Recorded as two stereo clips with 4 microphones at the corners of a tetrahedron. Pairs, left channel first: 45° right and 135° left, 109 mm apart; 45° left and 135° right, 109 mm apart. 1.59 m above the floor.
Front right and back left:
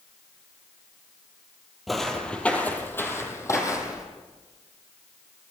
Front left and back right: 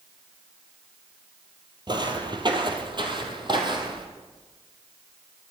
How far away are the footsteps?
About 2 m.